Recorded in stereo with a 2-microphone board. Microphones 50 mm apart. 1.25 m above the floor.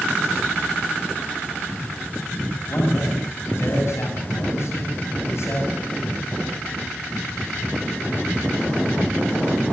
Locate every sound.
2.7 s a man speaking: 60° left (ahead or behind), 7 m